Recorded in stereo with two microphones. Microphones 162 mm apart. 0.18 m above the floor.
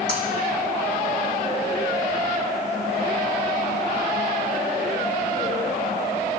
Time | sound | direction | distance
0.1 | breaking glass | 80° right | 4.5 m